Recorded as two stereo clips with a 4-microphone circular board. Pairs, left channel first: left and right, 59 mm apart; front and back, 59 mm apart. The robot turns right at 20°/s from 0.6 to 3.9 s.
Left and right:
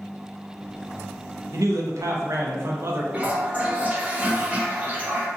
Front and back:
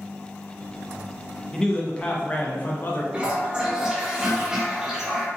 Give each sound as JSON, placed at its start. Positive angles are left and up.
{"t": 1.5, "sound": "a man speaking", "azimuth_deg": -80, "distance_m": 0.6}
{"t": 3.1, "sound": "a toilet flushing", "azimuth_deg": -130, "distance_m": 0.5}